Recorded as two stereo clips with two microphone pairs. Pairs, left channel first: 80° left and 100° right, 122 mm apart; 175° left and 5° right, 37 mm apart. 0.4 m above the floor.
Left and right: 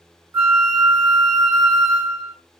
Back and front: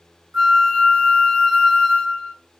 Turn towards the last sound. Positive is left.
turn(degrees=-60)